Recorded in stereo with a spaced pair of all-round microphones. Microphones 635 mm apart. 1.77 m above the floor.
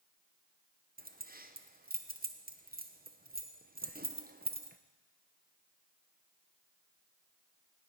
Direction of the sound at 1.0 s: 15° right (ahead or behind).